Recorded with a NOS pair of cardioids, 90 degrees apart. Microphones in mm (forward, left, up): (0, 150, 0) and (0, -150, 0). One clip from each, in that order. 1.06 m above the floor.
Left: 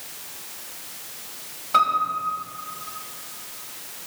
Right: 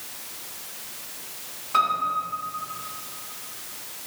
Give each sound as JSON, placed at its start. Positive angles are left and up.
{"t": 1.7, "sound": "a piano", "azimuth_deg": 40, "distance_m": 2.5}